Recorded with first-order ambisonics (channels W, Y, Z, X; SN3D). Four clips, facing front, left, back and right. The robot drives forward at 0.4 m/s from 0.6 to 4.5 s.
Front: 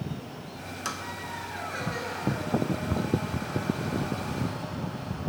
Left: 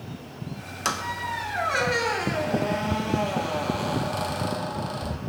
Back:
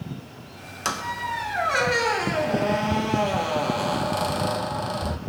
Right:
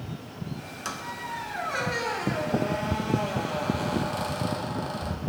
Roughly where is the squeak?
Behind left.